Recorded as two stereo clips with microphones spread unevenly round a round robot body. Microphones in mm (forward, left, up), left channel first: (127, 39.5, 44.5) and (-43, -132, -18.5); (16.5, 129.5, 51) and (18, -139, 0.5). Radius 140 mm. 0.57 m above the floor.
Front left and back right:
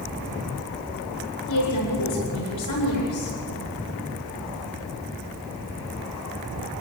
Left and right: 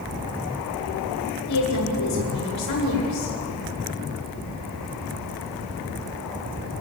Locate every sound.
1.5 s a woman speaking: 70° left, 8.5 m